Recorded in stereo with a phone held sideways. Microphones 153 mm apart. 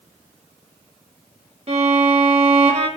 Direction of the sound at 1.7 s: 45° right (ahead or behind).